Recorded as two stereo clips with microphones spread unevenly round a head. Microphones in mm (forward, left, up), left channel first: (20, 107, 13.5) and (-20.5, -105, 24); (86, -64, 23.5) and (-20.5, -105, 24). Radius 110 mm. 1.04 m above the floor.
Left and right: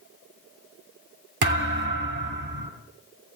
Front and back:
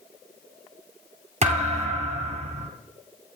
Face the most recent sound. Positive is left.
turn(degrees=-140)